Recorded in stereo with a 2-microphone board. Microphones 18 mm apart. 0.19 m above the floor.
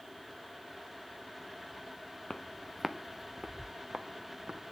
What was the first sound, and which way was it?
Footsteps, 45° left (ahead or behind).